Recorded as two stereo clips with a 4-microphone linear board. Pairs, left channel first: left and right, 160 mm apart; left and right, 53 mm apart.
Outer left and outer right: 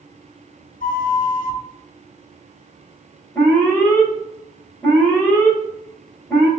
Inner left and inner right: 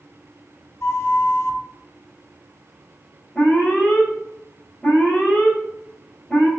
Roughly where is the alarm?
Centre.